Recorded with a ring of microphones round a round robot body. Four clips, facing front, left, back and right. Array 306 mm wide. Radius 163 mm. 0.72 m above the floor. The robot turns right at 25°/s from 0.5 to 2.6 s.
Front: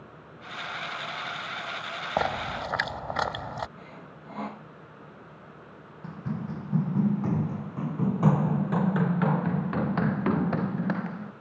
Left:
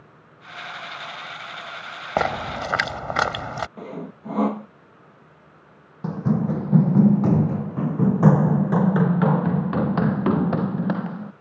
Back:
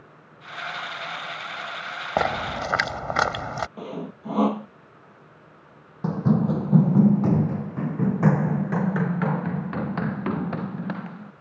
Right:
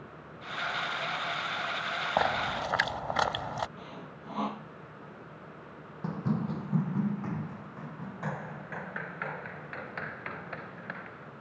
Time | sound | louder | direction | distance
2.2 | a splash | left 6 dB, back 4 dB | 115° left | ?
3.8 | sawing | left 10 dB, back 12 dB | 135° left | ?
6.0 | running footsteps | left 9 dB, back 13 dB | 150° left | ?